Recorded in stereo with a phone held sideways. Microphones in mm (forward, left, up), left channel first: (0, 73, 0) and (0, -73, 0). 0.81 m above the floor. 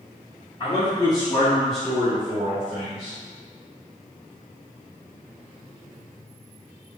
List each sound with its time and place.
0.6 s a man speaking: 35° left (ahead or behind), 1.9 m; by 3.2 s 50° right (ahead or behind), 1.7 m